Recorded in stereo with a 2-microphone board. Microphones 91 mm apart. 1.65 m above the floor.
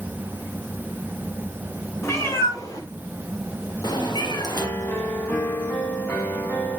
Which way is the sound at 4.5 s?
25° left (ahead or behind).